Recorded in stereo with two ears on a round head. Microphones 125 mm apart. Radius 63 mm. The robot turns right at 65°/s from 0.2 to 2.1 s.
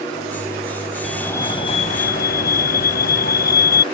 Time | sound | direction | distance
1.0 | a fire alarm | straight ahead | ?